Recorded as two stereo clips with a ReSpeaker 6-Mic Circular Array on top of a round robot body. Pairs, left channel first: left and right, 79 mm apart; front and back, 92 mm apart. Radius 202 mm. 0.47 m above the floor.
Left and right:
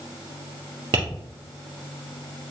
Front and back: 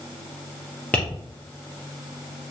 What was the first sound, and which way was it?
Tapping, 75° right.